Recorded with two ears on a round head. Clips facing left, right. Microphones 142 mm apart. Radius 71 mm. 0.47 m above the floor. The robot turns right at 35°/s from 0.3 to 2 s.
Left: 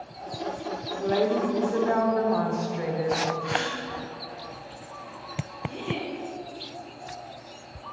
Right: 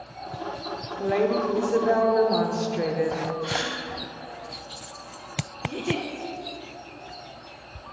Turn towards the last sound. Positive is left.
turn(degrees=-55)  # may be behind; listen again after turning